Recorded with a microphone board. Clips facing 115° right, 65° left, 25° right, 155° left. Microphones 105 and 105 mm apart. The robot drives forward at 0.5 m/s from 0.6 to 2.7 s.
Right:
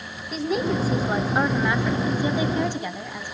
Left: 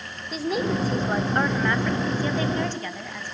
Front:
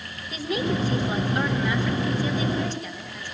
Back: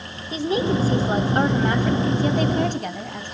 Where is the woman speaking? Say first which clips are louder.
Right 1 dB, back 5 dB; 155° left, 1.1 m; by 3.4 s 170° left, 1.8 m.